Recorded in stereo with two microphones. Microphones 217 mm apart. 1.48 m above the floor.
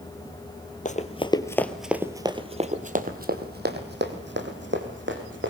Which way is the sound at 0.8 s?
35° left (ahead or behind).